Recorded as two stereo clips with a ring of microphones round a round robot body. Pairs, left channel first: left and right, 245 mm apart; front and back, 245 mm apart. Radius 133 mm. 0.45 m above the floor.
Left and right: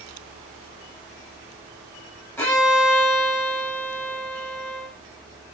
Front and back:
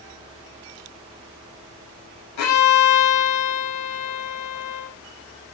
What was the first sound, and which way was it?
A violin, 10° left.